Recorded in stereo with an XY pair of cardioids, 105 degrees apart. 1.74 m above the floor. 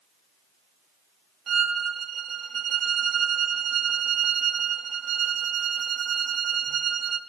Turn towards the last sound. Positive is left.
turn(degrees=-50)